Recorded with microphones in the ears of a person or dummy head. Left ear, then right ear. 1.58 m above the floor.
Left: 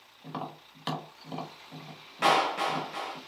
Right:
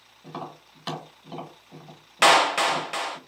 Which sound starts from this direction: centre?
Tapping, at 0.2 s.